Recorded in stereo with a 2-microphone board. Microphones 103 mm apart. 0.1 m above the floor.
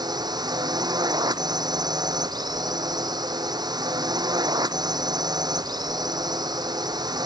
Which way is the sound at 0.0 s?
40° right (ahead or behind).